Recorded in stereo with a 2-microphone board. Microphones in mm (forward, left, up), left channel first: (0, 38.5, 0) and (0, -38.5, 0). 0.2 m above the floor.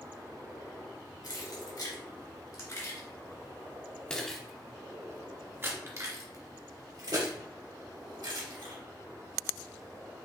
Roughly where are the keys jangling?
Left.